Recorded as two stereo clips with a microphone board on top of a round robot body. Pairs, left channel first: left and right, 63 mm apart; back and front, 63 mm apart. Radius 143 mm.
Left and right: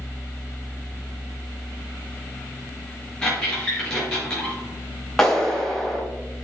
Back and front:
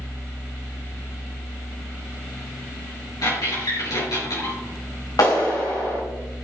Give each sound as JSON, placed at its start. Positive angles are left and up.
{"t": 3.2, "sound": "a squeak", "azimuth_deg": 170, "distance_m": 4.5}
{"t": 5.2, "sound": "a clap", "azimuth_deg": 175, "distance_m": 3.0}